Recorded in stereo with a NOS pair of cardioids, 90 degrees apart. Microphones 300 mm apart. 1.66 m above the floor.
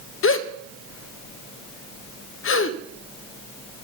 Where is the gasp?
45° left, 1.2 m.